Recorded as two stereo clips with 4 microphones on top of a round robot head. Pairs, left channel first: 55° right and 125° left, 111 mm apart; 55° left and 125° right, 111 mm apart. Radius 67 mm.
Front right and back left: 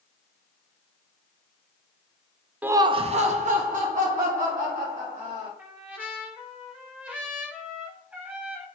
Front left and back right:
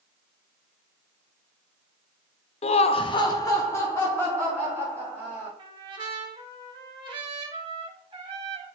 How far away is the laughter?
About 0.6 m.